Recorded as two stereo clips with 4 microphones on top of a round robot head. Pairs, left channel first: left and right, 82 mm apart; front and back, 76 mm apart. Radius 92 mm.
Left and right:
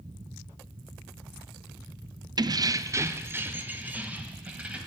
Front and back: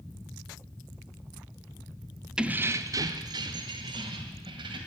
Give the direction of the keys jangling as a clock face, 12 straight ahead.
3 o'clock.